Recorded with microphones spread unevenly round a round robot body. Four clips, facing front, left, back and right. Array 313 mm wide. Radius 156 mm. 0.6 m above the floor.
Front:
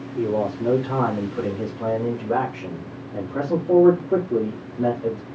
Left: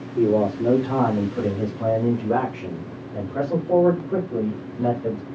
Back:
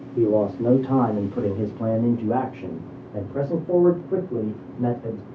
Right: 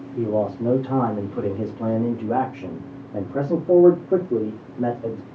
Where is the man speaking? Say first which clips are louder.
Left 3 dB, back 3 dB; 165° left, 1.7 m; by 5.2 s 65° right, 1.9 m.